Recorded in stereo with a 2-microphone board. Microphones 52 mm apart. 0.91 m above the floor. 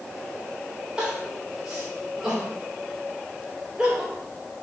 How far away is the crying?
About 2.5 m.